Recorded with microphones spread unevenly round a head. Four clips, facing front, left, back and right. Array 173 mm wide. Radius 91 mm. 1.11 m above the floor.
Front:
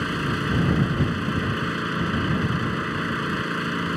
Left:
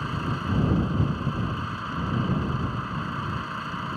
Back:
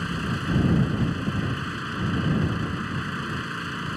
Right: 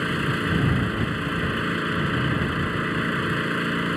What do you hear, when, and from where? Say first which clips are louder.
0.0 s an engine running: right 5 dB, front 4 dB; 55° right